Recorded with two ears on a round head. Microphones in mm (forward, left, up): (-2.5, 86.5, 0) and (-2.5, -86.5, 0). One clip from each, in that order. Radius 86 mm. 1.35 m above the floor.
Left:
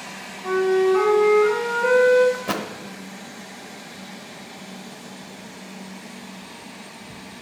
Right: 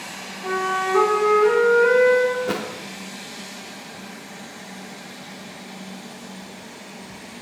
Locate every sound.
0.4 s a flute: 80° right, 4 m
2.3 s a thud: 15° left (ahead or behind), 0.9 m